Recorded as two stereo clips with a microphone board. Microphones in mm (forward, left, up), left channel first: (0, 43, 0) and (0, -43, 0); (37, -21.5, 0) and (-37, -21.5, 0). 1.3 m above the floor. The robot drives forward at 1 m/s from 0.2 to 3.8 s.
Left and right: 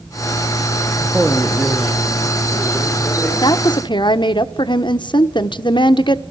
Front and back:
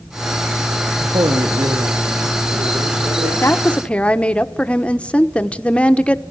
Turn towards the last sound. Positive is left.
turn(degrees=75)